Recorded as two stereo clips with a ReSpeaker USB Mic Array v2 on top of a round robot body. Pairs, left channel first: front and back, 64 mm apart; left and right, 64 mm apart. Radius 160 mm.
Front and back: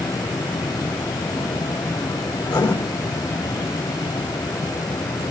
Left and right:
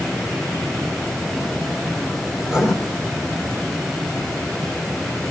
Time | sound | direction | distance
2.4 | writing | 10° right | 3.5 m